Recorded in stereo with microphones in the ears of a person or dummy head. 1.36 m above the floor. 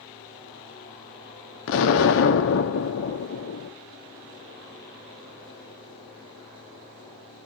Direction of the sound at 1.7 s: 70° left (ahead or behind).